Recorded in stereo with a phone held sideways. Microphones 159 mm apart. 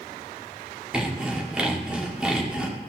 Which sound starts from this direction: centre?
Sawing, at 0.9 s.